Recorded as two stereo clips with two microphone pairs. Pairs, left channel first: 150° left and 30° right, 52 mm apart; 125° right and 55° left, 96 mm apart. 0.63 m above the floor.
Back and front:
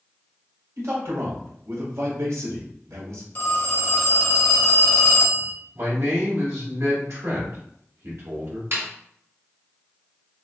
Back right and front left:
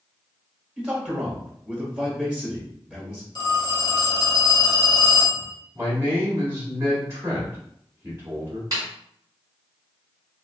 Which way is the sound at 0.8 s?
25° right.